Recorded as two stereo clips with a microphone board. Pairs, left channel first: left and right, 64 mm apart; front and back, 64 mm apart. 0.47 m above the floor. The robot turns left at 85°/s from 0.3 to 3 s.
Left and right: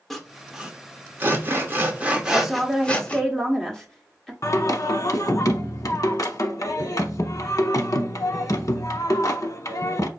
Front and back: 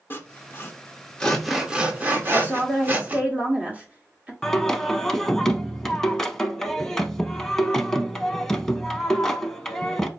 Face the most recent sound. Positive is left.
turn(degrees=80)